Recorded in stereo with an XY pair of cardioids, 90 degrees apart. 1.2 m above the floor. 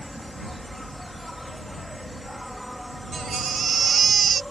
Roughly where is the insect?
Ahead.